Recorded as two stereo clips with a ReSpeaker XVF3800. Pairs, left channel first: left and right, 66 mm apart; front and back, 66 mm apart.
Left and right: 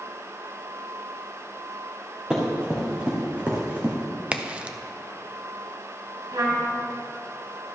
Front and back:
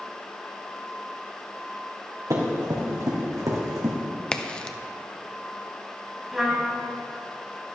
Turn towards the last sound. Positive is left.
turn(degrees=-90)